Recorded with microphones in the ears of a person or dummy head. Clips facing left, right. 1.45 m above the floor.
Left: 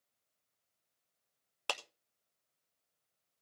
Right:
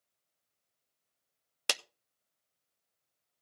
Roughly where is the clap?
Right.